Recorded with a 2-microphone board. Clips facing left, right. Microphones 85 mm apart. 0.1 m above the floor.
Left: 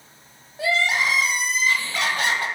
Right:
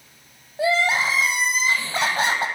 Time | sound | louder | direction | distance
0.6 | crying | right 2 dB | 25° right (ahead or behind) | 1.0 m